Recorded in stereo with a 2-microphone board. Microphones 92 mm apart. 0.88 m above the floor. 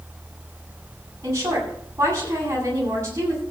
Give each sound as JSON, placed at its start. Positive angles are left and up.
{"t": 1.2, "sound": "a woman speaking", "side_deg": -35, "distance_m": 8.0}